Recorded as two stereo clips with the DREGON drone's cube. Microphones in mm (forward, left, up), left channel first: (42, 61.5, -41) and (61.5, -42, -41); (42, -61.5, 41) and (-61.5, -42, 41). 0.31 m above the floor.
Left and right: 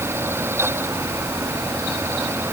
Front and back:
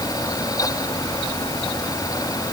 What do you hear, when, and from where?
Only background noise.